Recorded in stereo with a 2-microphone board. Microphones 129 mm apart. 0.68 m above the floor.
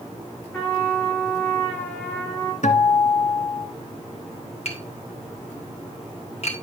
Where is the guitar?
65° left (ahead or behind), 1.2 m.